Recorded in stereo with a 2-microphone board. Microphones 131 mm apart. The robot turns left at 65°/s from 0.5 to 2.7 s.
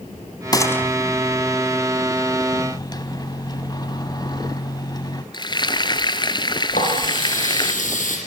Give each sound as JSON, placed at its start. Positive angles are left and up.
{"t": 0.5, "sound": "a gunshot", "side_deg": 30, "distance_m": 2.0}
{"t": 2.5, "sound": "a microwave", "side_deg": 40, "distance_m": 1.4}
{"t": 5.3, "sound": "frying", "side_deg": 35, "distance_m": 1.2}
{"t": 6.7, "sound": "a running tap", "side_deg": 80, "distance_m": 8.5}